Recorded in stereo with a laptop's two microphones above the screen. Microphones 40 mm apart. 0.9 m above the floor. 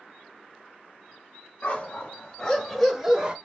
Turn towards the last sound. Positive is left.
turn(degrees=-30)  # may be behind; listen again after turning